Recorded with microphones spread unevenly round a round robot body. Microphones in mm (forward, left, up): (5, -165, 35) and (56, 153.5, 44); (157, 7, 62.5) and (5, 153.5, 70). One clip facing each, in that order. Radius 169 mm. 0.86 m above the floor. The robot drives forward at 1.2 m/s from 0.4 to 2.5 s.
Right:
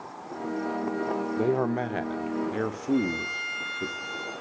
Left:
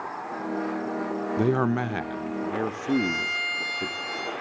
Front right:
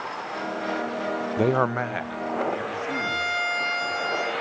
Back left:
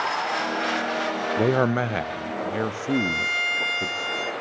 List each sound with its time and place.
1.4 s a man speaking: 40° left, 0.7 m; by 3.9 s 165° left, 1.2 m
2.9 s a violin: 85° left, 7.5 m